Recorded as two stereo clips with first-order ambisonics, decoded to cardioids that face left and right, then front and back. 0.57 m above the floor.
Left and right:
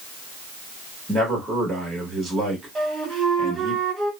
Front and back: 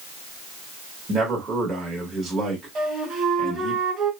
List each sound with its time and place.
1.1 s a man speaking: 160° right, 1.1 m
2.8 s a flute: 160° right, 1.6 m